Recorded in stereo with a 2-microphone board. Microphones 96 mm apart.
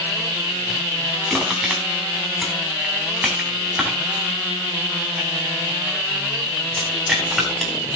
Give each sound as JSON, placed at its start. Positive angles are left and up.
{"t": 1.3, "sound": "crushing", "side_deg": -5, "distance_m": 3.0}